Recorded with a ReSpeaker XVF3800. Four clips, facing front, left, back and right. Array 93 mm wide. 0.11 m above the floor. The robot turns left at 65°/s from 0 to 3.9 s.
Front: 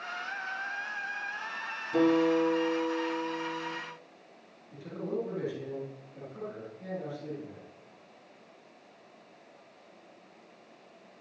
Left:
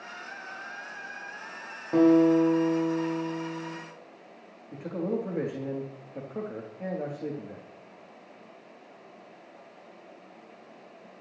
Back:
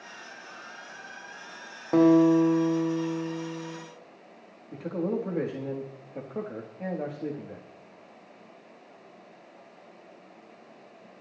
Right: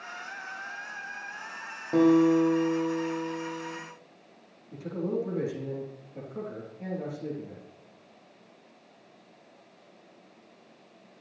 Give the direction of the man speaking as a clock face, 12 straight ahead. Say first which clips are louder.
Even, back 5 dB; 7 o'clock.